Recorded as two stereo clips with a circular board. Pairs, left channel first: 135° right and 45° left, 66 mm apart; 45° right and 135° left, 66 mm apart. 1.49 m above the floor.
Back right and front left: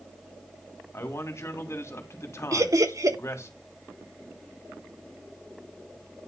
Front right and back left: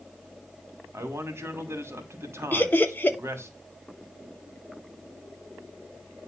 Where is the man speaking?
Straight behind, 2.5 m.